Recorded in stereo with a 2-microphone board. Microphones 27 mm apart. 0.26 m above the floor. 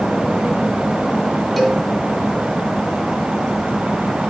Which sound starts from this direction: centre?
A cowbell, at 1.6 s.